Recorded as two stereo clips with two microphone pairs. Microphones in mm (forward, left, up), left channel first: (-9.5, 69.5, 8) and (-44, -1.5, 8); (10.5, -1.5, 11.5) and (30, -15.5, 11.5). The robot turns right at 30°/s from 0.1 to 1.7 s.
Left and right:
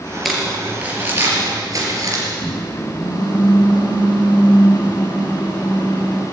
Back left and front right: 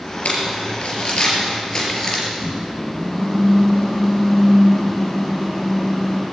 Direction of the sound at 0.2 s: 155° left.